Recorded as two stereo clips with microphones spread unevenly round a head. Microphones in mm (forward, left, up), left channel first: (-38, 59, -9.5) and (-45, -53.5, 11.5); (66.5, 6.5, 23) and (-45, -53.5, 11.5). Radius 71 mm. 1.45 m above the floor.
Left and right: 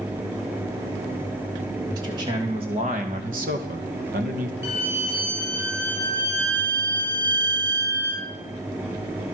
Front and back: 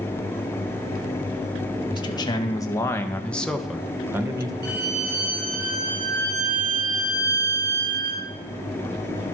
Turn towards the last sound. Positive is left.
turn(degrees=-155)